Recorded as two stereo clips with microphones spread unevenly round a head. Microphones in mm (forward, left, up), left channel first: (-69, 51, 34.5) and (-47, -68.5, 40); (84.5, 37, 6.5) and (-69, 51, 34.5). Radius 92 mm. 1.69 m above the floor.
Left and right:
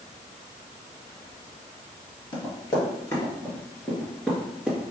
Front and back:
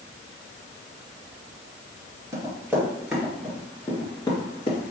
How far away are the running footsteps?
About 2.0 m.